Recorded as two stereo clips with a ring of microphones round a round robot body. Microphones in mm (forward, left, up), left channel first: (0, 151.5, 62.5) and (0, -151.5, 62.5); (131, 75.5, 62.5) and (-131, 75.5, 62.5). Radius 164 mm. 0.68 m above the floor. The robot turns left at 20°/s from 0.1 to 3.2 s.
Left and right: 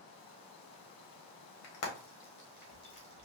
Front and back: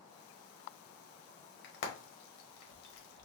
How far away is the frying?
About 1.1 m.